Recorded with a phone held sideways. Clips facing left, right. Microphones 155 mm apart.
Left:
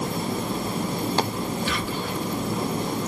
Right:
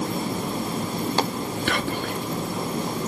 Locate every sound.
1.7 s whispering: 65° right (ahead or behind), 0.7 m